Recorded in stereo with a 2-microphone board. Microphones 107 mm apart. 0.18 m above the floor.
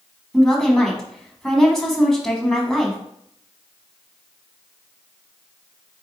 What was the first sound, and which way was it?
A woman speaking, 5° left (ahead or behind).